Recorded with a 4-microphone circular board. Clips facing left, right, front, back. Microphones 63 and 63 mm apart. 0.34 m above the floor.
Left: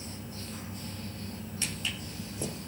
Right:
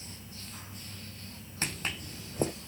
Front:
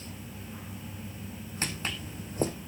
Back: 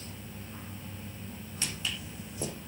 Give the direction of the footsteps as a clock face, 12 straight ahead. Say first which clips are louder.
Right 3 dB, front 3 dB; 2 o'clock.